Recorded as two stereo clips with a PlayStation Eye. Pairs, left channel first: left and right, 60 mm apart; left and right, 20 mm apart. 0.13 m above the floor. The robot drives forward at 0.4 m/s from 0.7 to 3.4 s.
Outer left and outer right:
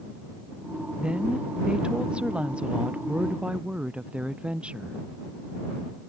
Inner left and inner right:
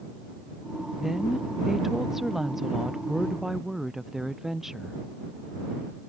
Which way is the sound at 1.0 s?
15° right (ahead or behind).